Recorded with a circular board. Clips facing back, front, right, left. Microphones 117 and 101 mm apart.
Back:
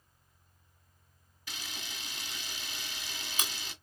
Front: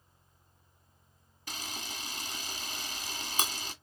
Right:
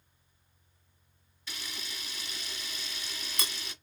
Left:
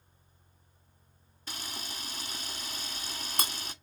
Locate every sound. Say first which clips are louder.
1.5 s a camera shutter: front 4 dB, left 2 dB; 45° left, 1.2 m